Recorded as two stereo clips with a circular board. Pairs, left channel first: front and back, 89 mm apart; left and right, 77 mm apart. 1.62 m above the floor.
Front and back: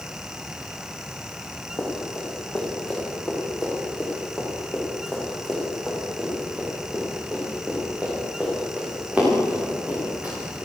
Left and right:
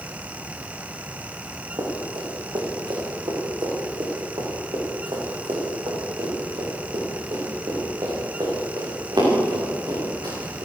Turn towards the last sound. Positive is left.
turn(degrees=-110)